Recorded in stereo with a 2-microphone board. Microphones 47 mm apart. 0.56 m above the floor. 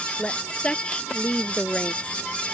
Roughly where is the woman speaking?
Left.